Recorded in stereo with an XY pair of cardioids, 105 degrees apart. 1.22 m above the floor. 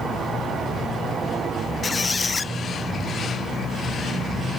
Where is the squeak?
30° left.